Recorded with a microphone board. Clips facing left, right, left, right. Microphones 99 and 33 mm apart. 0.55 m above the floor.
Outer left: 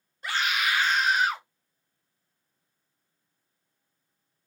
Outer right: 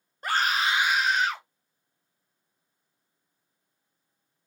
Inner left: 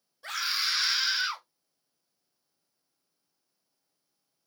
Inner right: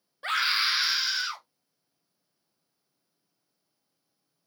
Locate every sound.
0.2 s a scream: 45° right (ahead or behind), 1.1 m; by 1.4 s 15° left (ahead or behind), 1.4 m